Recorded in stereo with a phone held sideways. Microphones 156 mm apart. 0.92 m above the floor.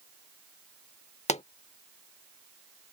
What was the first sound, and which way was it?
A pop, 45° left (ahead or behind).